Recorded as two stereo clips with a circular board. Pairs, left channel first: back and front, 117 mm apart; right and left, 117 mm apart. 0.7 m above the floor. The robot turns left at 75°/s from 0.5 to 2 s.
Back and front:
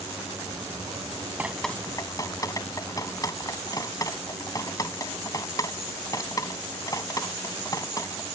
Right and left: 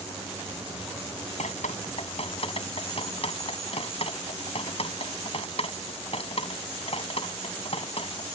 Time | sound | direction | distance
1.4 | dripping | 75° right | ?